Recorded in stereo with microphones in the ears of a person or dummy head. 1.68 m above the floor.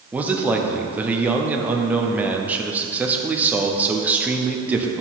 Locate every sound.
0.1 s a man speaking: 5° right (ahead or behind), 0.8 m